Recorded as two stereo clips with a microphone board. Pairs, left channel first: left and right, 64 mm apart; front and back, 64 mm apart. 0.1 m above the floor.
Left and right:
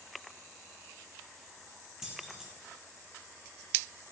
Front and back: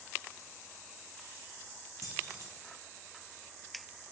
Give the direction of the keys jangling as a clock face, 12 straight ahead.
6 o'clock.